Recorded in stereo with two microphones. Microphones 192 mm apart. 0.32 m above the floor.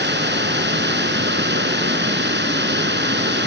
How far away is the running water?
About 3 m.